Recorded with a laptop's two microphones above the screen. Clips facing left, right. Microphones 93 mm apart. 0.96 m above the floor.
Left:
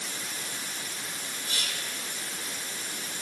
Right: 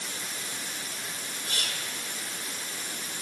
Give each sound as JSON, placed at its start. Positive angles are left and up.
{"t": 1.5, "sound": "whispering", "side_deg": -50, "distance_m": 3.0}